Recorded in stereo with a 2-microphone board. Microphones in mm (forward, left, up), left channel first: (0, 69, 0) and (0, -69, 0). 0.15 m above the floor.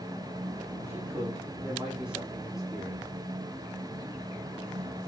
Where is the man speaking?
20° right (ahead or behind), 5 m; by 3.1 s centre (ahead or behind), 6 m.